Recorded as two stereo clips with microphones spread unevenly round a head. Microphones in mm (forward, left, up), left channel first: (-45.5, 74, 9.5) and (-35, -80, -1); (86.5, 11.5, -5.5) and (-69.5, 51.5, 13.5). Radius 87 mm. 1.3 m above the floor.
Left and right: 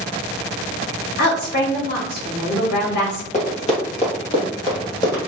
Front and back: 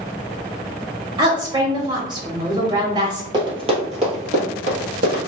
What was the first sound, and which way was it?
A woman speaking, 100° left.